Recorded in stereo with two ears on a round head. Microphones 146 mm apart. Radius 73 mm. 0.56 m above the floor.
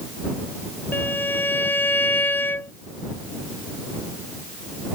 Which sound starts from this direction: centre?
A violin, at 0.9 s.